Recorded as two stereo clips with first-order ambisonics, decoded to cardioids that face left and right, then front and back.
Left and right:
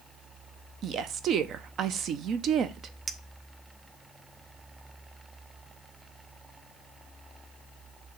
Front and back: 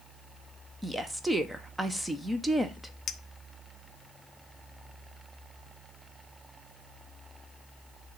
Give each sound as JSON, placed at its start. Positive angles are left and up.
{"t": 0.8, "sound": "a woman speaking", "azimuth_deg": -100, "distance_m": 0.6}
{"t": 3.1, "sound": "a clink", "azimuth_deg": -35, "distance_m": 0.5}